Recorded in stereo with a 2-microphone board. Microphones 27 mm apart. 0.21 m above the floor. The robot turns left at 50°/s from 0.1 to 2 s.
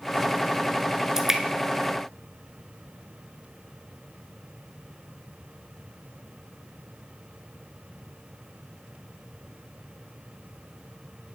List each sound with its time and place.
1.2 s dripping: 20° right (ahead or behind), 0.7 m; by 1.4 s 10° right (ahead or behind), 0.7 m